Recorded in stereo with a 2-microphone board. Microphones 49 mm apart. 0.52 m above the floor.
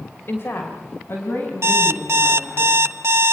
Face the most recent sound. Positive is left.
turn(degrees=-80)